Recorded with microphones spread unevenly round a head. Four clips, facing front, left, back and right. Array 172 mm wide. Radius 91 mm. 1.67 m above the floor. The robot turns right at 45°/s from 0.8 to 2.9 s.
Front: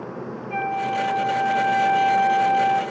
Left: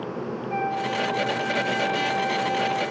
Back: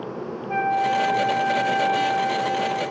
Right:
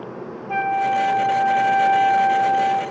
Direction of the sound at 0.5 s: 110° right.